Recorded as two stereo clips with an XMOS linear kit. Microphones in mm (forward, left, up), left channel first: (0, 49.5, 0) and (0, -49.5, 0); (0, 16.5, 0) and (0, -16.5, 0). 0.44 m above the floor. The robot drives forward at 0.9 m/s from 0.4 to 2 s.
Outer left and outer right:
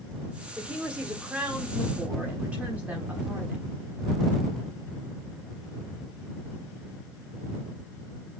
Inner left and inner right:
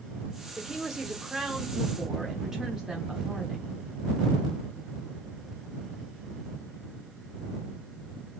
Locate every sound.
0.6 s a woman speaking: 10° right (ahead or behind), 1.6 m; by 3.6 s 15° right (ahead or behind), 1.2 m